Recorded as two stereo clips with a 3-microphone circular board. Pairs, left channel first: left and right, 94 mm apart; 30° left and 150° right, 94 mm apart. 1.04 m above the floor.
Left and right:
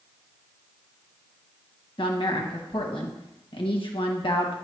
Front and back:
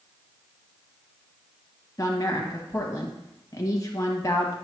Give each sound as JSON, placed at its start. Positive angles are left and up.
{"t": 2.0, "sound": "a woman speaking", "azimuth_deg": 80, "distance_m": 1.3}